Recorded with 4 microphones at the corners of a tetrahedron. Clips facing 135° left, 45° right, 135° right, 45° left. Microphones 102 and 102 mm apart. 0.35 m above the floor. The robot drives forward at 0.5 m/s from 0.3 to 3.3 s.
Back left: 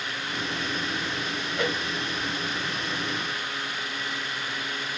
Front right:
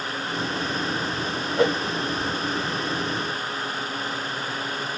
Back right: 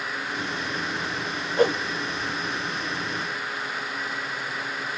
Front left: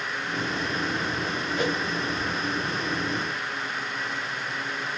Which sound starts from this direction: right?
A whoosh, at 1.6 s.